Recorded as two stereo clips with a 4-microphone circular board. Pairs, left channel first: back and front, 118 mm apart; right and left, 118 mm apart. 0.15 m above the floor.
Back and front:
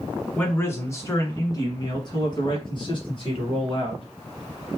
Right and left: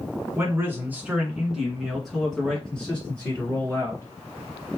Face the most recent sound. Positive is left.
turn(degrees=-160)